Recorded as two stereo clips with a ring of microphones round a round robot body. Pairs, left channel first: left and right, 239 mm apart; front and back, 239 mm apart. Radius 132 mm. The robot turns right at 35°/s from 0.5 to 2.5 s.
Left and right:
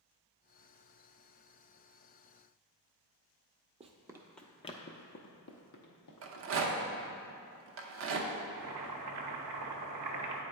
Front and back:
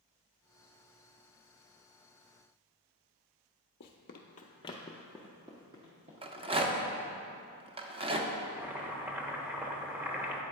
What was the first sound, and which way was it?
Running footsteps, 30° right.